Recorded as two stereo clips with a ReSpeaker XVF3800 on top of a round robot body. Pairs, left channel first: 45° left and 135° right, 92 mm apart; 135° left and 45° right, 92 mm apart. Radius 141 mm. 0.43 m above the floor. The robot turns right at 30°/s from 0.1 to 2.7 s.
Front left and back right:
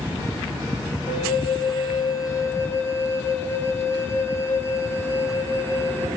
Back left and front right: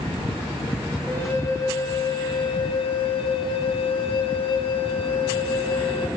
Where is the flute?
60° left, 4 m; by 6.1 s 110° left, 4 m.